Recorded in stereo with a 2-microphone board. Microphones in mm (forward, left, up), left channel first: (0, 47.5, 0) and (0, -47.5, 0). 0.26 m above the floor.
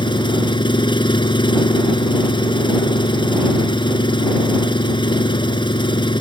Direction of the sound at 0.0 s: 65° left (ahead or behind).